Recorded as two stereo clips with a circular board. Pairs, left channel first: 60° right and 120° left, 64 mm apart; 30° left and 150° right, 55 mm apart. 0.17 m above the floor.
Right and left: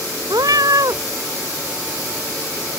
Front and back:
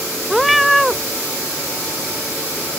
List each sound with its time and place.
0.3 s a cat meowing: 125° left